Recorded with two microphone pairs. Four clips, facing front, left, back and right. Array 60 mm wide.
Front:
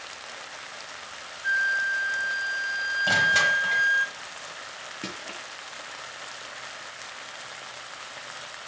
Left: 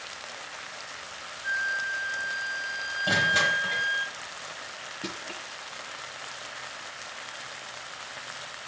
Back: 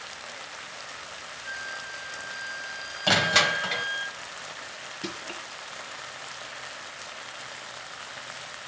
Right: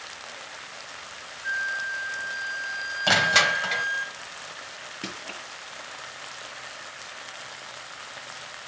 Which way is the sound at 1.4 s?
20° right.